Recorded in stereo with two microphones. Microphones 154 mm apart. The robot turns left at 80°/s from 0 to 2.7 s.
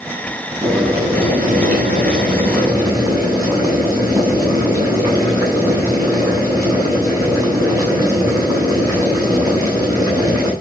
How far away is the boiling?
About 9.5 m.